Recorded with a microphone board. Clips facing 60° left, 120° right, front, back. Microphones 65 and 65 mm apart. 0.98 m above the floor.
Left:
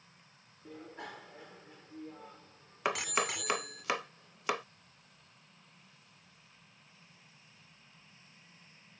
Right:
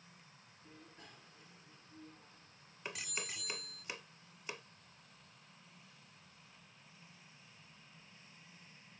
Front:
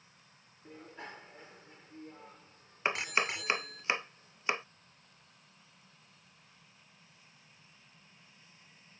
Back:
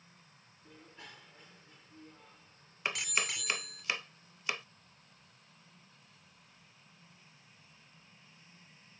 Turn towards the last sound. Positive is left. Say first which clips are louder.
# left 13 dB, front 4 dB
turn(degrees=65)